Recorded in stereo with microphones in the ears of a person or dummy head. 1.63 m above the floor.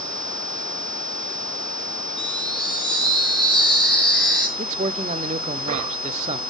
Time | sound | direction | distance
2.2 | a chime | centre (ahead or behind) | 6 m
4.6 | a man speaking | 35° right (ahead or behind) | 0.7 m